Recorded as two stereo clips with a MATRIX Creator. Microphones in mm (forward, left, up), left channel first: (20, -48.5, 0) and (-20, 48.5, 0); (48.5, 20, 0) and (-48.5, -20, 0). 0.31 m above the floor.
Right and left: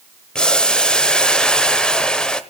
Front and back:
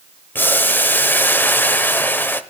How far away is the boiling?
About 0.8 m.